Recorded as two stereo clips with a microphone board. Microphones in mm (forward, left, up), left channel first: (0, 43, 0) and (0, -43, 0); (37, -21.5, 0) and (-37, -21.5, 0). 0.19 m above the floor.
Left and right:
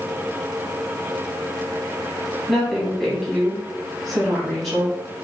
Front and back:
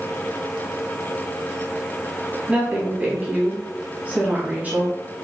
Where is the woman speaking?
175° left, 1.0 m.